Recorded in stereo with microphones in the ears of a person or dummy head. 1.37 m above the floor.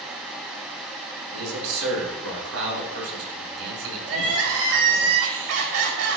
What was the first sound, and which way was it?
A man speaking, 75° right (ahead or behind).